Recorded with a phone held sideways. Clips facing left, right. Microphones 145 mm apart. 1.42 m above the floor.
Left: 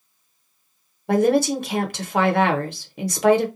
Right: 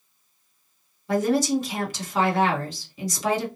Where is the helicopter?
No helicopter in this recording.